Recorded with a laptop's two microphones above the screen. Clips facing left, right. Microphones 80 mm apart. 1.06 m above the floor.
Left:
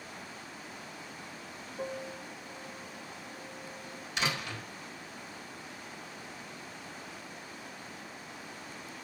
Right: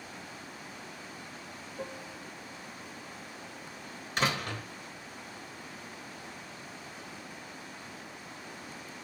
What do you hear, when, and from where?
1.8 s a piano: centre (ahead or behind), 0.6 m
4.2 s a door slam: 45° right (ahead or behind), 3.5 m